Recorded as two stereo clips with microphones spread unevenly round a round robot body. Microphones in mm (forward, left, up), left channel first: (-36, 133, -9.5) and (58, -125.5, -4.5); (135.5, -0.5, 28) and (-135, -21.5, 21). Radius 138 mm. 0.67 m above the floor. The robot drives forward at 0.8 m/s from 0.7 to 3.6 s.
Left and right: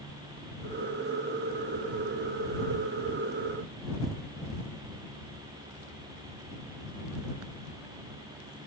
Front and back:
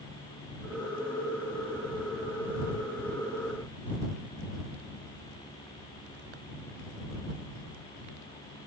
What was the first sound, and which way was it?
Only background noise.